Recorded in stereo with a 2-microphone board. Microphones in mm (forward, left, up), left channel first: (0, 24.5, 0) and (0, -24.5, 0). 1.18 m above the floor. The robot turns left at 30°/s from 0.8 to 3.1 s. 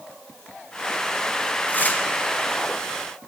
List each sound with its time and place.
1.7 s tearing paper: 40° left (ahead or behind), 1.3 m; by 2.0 s 30° left (ahead or behind), 1.3 m